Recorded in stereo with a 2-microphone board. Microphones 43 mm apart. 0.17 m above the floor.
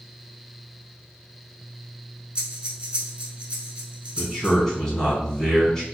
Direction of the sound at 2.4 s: 25° right (ahead or behind).